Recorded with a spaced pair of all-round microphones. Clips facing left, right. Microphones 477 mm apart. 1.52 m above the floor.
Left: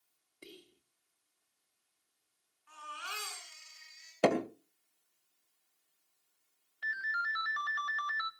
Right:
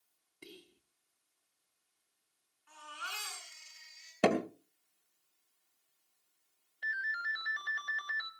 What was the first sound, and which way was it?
Whispering, 10° right (ahead or behind).